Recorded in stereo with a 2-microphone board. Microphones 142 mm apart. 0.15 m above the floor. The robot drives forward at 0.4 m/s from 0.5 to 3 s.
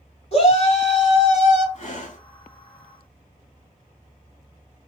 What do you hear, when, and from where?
0.3 s a shout: 45° left (ahead or behind), 1.9 m; by 1.6 s 50° left (ahead or behind), 1.7 m
1.8 s breathing: 55° left (ahead or behind), 0.9 m